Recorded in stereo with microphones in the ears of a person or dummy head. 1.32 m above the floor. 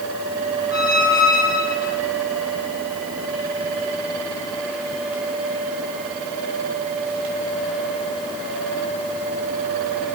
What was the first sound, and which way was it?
A squeak, 10° left (ahead or behind).